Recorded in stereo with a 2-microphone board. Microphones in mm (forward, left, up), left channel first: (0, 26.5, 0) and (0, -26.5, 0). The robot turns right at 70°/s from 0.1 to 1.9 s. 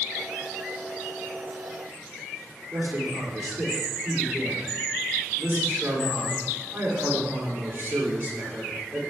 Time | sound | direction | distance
2.7 | a man speaking | 35° right (ahead or behind) | 3 m